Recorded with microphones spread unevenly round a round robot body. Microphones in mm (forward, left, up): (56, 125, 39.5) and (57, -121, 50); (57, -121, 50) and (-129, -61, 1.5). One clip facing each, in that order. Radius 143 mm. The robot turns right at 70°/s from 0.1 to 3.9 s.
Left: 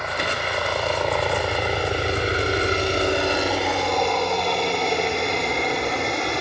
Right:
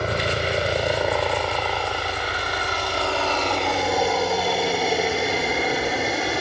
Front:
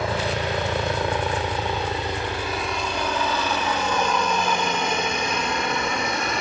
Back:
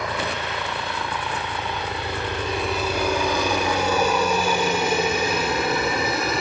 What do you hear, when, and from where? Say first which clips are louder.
0.0 s a helicopter: right 4 dB, front 3 dB; 75° right; by 6.4 s 175° right